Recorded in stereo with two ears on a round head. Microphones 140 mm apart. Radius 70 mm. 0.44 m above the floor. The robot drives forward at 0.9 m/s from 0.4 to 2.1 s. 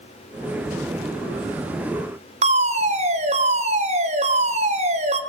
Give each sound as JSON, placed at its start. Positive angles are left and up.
{"t": 2.4, "sound": "a fire alarm", "side_deg": -45, "distance_m": 3.0}